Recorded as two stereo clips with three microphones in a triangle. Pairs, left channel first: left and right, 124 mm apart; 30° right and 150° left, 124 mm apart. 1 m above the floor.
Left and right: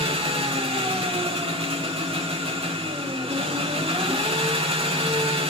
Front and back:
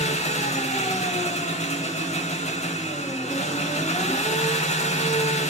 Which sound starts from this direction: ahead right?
An engine running, at 0.0 s.